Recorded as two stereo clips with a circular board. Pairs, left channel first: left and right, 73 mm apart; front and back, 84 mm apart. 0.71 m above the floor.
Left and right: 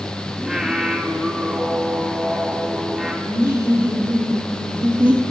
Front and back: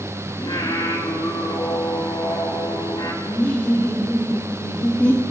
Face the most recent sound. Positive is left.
turn(degrees=-65)